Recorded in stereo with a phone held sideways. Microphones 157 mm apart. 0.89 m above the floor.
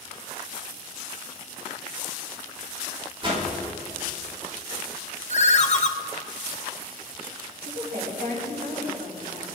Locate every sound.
3.2 s a whoosh: 35° right (ahead or behind), 4 m
5.3 s a ringtone: 50° left (ahead or behind), 0.8 m
7.7 s a woman speaking: 80° right, 6.5 m